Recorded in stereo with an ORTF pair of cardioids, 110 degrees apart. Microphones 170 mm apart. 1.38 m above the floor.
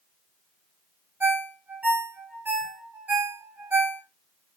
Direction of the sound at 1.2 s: 10° right.